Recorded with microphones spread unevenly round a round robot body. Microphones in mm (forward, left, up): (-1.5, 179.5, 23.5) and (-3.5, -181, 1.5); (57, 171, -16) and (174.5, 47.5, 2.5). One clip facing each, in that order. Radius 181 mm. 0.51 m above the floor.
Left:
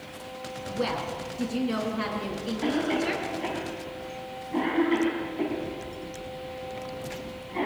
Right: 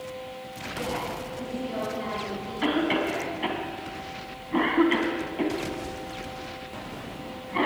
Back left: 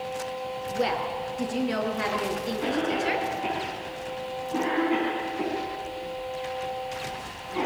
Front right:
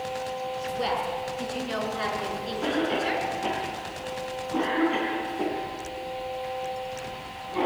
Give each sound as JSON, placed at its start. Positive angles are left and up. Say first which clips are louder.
{"t": 0.7, "sound": "a woman speaking", "louder": "left 2 dB, back left 3 dB", "azimuth_deg": 95, "distance_m": 5.5}
{"t": 2.6, "sound": "a cough", "louder": "right 2 dB, front right 2 dB", "azimuth_deg": -140, "distance_m": 3.5}